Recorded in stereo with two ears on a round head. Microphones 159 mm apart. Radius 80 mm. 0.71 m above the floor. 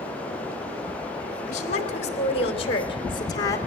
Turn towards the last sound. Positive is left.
turn(degrees=20)  # may be behind; listen again after turning